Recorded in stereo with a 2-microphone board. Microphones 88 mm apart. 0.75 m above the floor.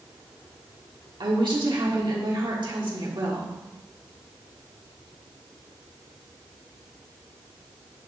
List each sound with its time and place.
1.2 s a woman speaking: 65° right (ahead or behind), 1.4 m